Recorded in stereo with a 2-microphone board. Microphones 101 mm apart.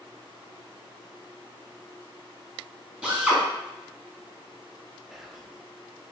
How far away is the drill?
About 1.7 m.